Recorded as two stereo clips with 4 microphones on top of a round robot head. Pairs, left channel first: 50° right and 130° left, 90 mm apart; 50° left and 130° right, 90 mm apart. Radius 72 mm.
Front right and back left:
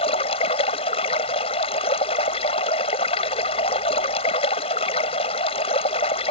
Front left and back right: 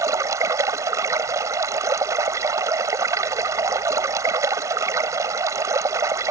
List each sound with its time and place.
0.0 s running water: 75° right